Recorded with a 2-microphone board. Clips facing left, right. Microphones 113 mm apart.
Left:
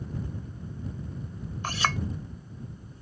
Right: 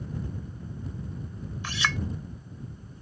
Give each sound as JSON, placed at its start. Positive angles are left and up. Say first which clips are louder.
{"t": 1.6, "sound": "a clink", "louder": "left 3 dB", "side_deg": 45}